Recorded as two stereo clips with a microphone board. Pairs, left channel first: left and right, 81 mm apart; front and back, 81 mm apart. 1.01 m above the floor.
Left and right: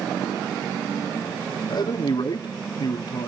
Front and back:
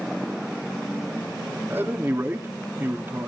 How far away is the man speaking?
About 2 m.